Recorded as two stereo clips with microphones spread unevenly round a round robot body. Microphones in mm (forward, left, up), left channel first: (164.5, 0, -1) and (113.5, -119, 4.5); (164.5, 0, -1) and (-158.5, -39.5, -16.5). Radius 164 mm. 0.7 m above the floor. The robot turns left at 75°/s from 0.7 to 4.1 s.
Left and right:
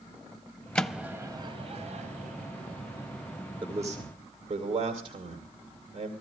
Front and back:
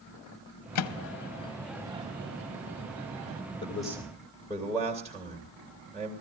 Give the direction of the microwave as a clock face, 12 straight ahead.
12 o'clock.